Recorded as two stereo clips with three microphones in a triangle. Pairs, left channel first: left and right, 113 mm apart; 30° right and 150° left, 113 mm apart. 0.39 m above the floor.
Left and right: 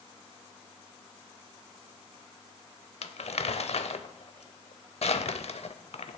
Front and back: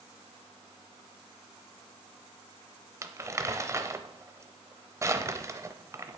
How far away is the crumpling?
About 0.7 m.